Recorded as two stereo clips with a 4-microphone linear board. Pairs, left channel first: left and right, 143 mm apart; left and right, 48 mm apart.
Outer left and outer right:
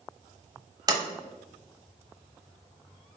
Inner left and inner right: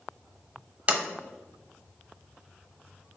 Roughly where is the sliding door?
Right.